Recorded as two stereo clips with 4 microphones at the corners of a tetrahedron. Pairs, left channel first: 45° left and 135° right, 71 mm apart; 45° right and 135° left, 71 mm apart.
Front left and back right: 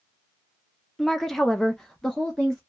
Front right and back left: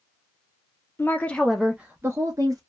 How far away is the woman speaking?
About 0.5 m.